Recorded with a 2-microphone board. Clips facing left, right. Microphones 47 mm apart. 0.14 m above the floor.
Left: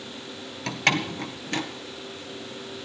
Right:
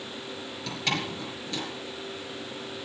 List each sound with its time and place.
0.7 s a door slam: 55° left (ahead or behind), 1.6 m